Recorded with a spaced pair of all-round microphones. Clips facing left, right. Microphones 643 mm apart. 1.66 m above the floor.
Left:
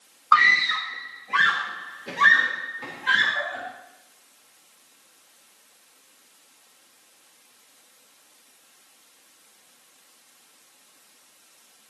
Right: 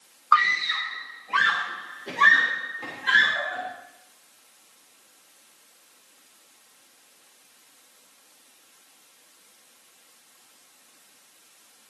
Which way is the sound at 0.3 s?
60° left (ahead or behind).